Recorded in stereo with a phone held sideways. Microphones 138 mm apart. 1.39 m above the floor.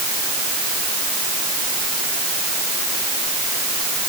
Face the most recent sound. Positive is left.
No sound to turn to.